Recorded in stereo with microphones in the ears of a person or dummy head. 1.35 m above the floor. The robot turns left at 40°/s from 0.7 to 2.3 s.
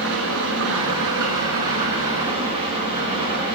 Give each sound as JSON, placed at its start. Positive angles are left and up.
{"t": 0.0, "sound": "an engine running", "azimuth_deg": -90, "distance_m": 4.0}